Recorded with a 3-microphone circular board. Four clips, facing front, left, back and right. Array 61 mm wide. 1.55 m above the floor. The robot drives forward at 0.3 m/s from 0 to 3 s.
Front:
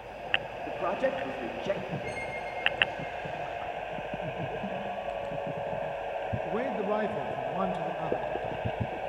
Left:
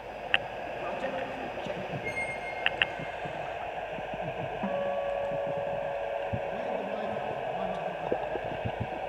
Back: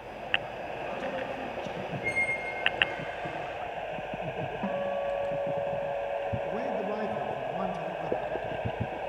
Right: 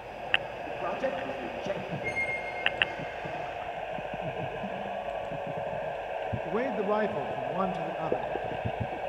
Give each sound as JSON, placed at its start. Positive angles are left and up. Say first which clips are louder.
{"t": 0.7, "sound": "a man speaking", "louder": "right 4 dB, front 7 dB", "azimuth_deg": -15, "distance_m": 3.0}
{"t": 2.0, "sound": "a squeak", "louder": "right 2 dB, back 5 dB", "azimuth_deg": -160, "distance_m": 2.0}
{"t": 4.6, "sound": "a guitar", "louder": "left 4 dB, back 4 dB", "azimuth_deg": 135, "distance_m": 1.8}
{"t": 6.5, "sound": "a man speaking", "louder": "right 4 dB, front 1 dB", "azimuth_deg": -70, "distance_m": 1.6}